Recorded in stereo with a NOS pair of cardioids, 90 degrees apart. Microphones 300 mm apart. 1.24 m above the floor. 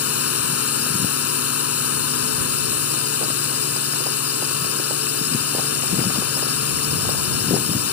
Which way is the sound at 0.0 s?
55° left.